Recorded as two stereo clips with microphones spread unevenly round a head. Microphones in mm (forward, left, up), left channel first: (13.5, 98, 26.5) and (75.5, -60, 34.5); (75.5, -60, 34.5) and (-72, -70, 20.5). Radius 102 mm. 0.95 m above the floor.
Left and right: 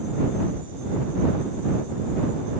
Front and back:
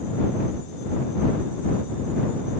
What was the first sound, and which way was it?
Only background noise.